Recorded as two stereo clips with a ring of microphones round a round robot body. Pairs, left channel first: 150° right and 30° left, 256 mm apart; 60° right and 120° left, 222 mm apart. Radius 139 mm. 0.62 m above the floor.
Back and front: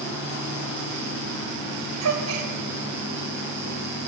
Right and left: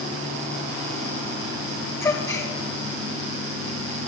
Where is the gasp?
15° left, 2 m.